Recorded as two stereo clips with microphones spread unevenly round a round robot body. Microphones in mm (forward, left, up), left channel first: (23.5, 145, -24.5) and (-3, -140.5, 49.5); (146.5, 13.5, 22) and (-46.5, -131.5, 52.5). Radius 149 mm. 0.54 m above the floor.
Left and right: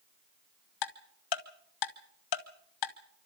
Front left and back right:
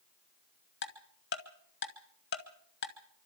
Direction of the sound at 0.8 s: 90° left.